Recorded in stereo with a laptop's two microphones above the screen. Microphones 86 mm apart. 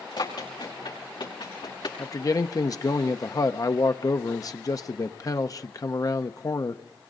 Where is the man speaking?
45° left (ahead or behind), 0.8 m.